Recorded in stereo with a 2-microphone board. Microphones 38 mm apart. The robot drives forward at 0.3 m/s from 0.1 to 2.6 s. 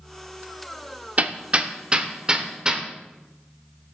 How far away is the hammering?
About 0.5 m.